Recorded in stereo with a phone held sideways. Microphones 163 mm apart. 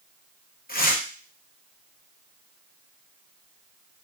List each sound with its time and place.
0.7 s tearing paper: 65° left (ahead or behind), 0.5 m